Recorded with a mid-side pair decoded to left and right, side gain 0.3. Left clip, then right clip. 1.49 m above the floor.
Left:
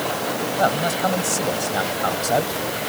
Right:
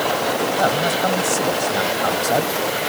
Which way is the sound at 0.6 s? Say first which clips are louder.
Even; 5° left.